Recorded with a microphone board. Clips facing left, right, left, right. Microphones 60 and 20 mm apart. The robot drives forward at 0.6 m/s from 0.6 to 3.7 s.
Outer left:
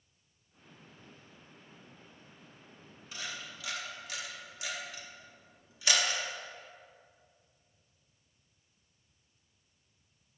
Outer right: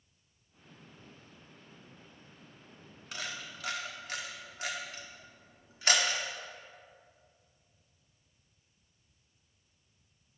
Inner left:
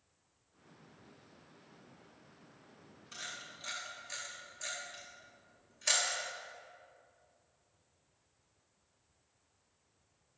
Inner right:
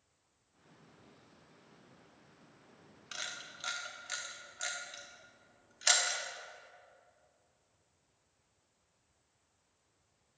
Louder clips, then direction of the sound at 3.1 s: Outer right 1 dB, inner right 3 dB; 70° right (ahead or behind).